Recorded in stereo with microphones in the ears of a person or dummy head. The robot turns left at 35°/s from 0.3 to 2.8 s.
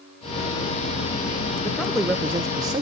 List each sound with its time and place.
1.6 s a man speaking: 10° left, 0.6 m; by 2.8 s 30° right, 0.6 m